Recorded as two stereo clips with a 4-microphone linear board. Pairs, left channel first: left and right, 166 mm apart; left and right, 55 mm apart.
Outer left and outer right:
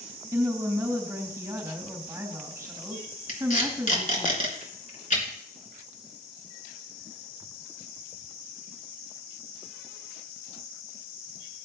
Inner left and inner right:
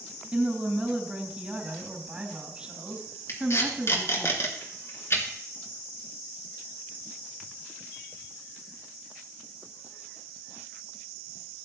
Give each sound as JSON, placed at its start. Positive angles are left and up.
{"t": 0.3, "sound": "a woman speaking", "side_deg": -25, "distance_m": 3.5}
{"t": 3.3, "sound": "tape being pulled", "side_deg": 50, "distance_m": 3.0}